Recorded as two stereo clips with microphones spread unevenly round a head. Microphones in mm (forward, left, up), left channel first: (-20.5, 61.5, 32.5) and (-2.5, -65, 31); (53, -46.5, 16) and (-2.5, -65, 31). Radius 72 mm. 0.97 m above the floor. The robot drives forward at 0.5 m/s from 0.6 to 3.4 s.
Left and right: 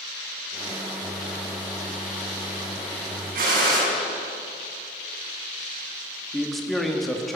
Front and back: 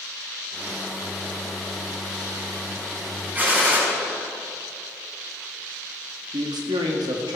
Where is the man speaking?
175° right, 1.5 m.